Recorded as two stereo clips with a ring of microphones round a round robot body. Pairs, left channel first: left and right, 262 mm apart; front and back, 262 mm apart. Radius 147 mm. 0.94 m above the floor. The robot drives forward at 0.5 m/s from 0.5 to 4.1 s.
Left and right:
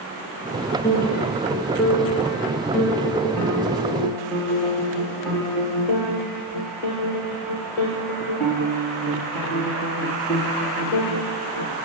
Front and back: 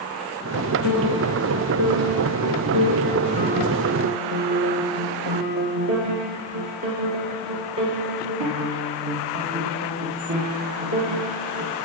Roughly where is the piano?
Behind.